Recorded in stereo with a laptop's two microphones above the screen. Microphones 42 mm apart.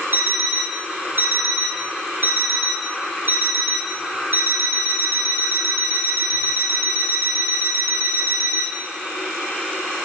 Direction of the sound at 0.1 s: 65° right (ahead or behind).